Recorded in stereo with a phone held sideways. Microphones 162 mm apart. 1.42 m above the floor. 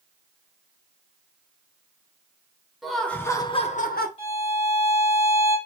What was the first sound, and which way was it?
Laughter, centre (ahead or behind).